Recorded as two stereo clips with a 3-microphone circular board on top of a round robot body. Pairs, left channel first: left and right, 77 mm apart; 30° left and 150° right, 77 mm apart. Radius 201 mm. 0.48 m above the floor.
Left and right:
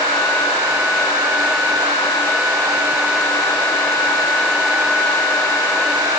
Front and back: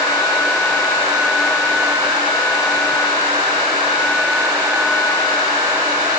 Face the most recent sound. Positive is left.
No sound to turn to.